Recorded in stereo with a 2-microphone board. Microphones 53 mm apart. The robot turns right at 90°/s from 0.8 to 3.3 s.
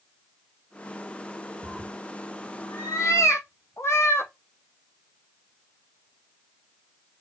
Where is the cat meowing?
30° right (ahead or behind), 0.9 m; by 4.3 s 60° left (ahead or behind), 0.9 m.